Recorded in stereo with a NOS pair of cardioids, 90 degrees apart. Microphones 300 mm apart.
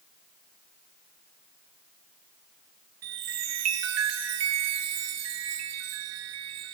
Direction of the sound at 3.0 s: 60° right.